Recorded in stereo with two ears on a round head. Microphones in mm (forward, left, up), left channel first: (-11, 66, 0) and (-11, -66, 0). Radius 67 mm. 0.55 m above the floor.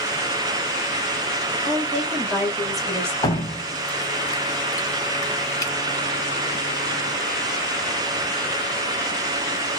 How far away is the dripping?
About 0.7 m.